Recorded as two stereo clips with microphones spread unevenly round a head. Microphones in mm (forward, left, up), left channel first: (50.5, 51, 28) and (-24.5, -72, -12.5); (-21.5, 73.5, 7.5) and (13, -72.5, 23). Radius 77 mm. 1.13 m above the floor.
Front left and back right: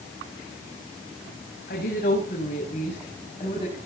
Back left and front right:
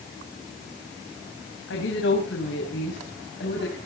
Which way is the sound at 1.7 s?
95° left.